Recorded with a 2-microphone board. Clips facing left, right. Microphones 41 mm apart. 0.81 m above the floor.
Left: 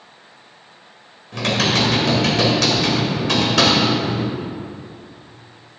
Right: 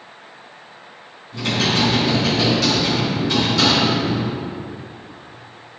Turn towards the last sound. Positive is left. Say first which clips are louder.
# left 1 dB
turn(degrees=80)